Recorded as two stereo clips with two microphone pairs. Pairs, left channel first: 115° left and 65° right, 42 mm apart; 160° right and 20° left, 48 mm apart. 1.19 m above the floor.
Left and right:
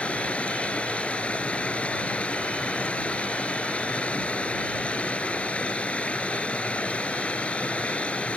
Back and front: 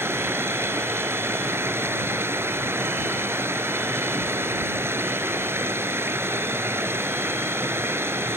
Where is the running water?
55° left.